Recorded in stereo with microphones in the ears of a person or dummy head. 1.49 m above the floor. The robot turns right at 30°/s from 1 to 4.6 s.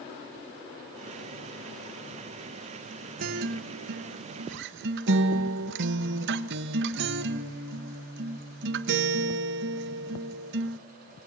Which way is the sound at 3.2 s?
125° right.